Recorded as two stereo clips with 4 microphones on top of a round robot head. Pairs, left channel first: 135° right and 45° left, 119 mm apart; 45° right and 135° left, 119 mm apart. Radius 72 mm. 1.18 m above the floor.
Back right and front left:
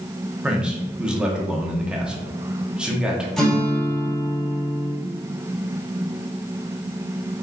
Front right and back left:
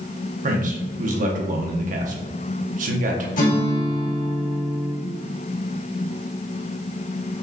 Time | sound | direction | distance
0.4 | a man speaking | 130° left | 0.9 m
3.4 | a guitar | 45° right | 1.5 m